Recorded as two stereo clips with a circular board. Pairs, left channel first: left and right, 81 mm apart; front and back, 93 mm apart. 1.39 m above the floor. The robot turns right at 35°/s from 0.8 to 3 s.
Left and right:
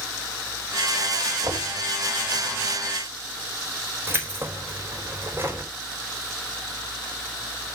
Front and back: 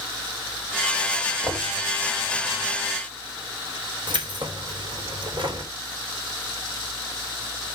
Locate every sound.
1.4 s knocking: 125° right, 3 m; by 1.8 s 115° right, 3 m
4.1 s keys jangling: 150° right, 3 m